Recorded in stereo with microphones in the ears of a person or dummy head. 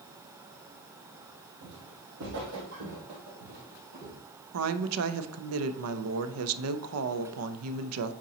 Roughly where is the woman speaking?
Right.